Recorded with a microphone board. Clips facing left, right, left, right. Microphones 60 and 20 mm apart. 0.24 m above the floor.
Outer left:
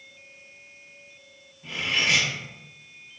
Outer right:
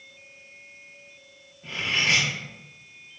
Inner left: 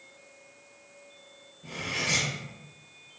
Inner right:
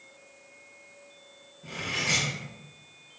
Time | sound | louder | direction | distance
1.6 | cutlery clinking | even, inner right 1 dB | centre (ahead or behind) | 1.2 m